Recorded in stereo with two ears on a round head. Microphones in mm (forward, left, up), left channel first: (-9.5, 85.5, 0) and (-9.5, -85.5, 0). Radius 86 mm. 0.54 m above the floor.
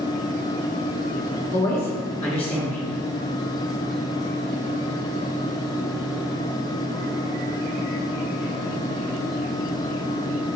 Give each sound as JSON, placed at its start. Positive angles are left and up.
{"t": 1.5, "sound": "a woman speaking", "side_deg": 30, "distance_m": 1.1}